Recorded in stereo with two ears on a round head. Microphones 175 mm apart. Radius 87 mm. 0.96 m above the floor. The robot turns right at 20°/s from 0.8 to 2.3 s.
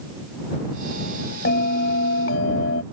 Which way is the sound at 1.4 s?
55° left (ahead or behind).